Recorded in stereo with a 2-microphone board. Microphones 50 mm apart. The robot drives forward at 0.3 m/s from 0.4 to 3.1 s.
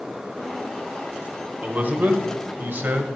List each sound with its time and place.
1.6 s a man speaking: 35° right (ahead or behind), 1.1 m; by 3.1 s 45° right (ahead or behind), 0.9 m